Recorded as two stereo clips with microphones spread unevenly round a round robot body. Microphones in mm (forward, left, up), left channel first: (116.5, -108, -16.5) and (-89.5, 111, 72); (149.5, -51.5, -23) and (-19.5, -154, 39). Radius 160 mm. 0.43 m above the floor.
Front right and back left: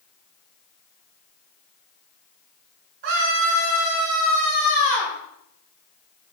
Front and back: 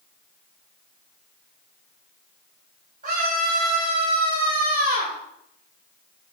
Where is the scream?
140° left, 7.5 m; by 5.2 s 135° left, 10 m.